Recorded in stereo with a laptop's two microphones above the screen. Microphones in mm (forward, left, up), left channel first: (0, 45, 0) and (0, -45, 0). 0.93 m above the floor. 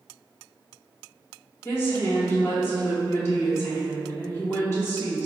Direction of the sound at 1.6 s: 25° left (ahead or behind).